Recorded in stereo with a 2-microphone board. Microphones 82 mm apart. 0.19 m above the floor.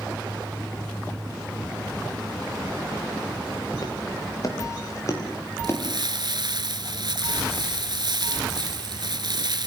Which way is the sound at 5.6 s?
65° right (ahead or behind).